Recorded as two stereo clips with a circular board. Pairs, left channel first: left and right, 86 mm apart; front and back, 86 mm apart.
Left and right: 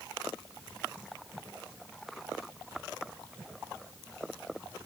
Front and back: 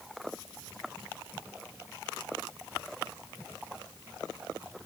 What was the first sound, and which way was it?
Only background noise.